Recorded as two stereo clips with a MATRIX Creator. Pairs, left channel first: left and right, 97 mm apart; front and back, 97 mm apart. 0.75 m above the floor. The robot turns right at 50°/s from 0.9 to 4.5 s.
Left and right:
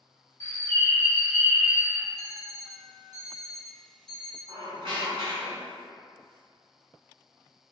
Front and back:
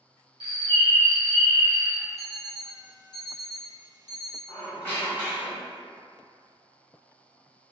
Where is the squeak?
70° right, 1.1 m; by 5.8 s 65° right, 1.1 m.